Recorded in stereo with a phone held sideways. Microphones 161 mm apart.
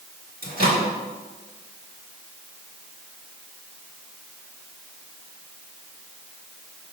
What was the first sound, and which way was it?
A microwave, 65° right (ahead or behind).